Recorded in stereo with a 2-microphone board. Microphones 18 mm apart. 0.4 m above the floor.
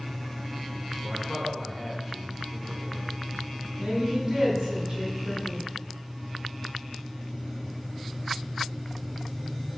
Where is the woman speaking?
50° right (ahead or behind), 3.5 m.